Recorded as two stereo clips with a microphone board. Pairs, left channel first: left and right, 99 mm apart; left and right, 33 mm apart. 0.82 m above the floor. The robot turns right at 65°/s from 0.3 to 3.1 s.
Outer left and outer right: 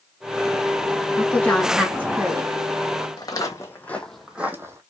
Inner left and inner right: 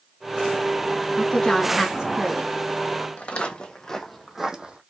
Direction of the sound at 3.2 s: 40° left (ahead or behind).